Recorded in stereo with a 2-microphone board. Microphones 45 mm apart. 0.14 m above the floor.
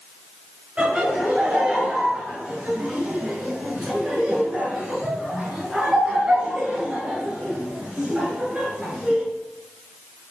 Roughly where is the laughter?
Right.